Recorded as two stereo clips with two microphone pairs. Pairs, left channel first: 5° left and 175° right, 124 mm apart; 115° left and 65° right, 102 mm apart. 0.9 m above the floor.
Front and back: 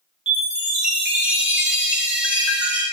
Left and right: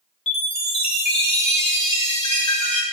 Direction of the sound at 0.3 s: 110° left.